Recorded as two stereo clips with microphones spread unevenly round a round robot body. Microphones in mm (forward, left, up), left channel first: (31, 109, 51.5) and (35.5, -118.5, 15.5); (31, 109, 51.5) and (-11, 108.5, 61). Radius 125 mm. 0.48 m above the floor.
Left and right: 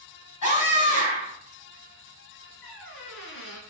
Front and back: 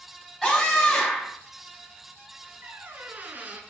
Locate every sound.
0.4 s a scream: 85° left, 4.5 m
2.6 s a squeak: 135° left, 1.7 m